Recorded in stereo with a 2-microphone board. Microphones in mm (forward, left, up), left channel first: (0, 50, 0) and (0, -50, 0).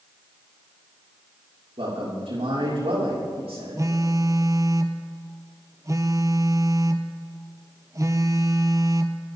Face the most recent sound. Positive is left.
turn(degrees=-35)  # may be behind; listen again after turning